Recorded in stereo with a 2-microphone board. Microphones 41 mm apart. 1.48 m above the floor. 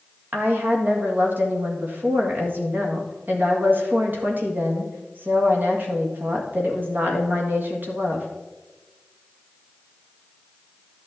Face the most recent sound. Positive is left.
turn(degrees=-50)  # may be behind; listen again after turning